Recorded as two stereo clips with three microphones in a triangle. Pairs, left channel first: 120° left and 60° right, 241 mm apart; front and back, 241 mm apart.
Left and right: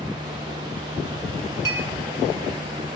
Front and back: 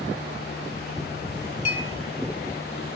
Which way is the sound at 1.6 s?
20° right.